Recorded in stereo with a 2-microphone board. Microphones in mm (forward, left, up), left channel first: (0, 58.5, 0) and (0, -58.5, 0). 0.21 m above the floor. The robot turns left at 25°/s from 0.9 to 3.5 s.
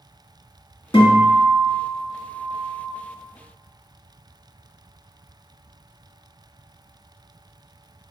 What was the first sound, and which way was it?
A guitar, 95° left.